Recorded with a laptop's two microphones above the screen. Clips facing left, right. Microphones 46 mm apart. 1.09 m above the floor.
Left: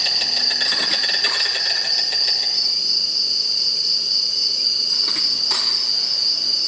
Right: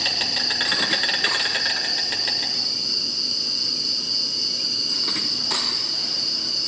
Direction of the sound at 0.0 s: 30° right (ahead or behind).